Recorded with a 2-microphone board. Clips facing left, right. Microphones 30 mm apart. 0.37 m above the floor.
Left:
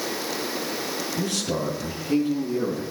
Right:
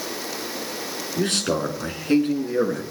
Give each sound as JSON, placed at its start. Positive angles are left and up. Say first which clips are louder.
{"t": 1.2, "sound": "a man speaking", "louder": "right 6 dB", "side_deg": -65, "distance_m": 5.0}